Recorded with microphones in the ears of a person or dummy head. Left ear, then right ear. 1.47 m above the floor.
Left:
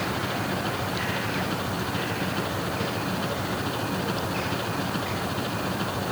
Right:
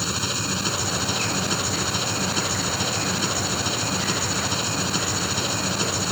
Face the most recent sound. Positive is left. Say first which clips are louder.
# right 2 dB
turn(degrees=-75)  # may be behind; listen again after turning